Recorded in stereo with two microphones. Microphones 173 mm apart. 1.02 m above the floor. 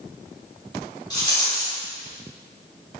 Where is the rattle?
25° left (ahead or behind), 1.1 m.